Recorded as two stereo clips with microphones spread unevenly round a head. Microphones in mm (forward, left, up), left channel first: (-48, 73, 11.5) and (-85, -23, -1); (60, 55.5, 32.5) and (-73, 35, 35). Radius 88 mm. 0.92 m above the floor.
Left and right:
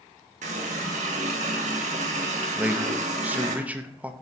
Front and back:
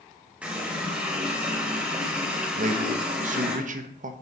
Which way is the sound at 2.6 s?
Straight behind.